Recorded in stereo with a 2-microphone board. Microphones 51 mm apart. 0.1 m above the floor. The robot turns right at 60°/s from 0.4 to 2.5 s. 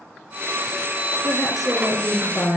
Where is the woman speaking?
25° right, 2.5 m; by 2.6 s 50° left, 2.5 m.